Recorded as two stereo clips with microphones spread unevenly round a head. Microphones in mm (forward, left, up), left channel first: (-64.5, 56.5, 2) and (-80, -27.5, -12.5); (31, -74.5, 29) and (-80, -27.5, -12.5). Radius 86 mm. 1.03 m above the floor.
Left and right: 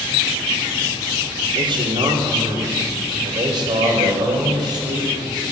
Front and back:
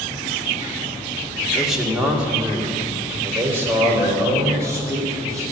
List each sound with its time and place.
1.6 s a man speaking: 115° right, 2 m; by 5.4 s 135° right, 5 m